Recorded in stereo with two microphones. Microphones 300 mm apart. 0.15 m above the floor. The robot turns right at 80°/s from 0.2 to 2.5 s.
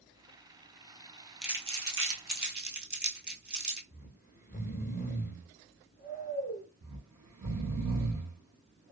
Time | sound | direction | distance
1.4 | crumpling | centre (ahead or behind) | 1.1 m
3.9 | snoring | 35° left (ahead or behind) | 1.0 m
6.8 | snoring | 70° right (ahead or behind) | 1.5 m